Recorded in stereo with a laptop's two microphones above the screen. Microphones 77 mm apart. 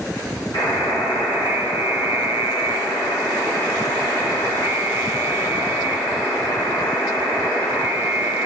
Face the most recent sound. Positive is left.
turn(degrees=65)  # may be behind; listen again after turning